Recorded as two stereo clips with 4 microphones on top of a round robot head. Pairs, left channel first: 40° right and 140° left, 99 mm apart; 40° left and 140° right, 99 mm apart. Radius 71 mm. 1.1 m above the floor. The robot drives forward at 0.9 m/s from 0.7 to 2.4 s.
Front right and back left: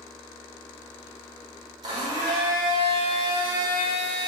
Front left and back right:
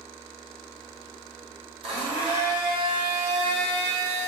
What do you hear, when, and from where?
1.8 s a blender: 170° right, 4 m; by 4.3 s 175° right, 4.5 m